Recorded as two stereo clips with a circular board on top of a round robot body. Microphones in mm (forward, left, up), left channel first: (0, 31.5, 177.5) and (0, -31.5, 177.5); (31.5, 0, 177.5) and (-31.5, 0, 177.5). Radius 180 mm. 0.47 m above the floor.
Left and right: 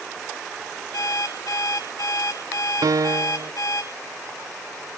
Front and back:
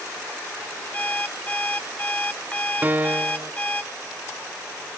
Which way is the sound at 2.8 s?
115° right.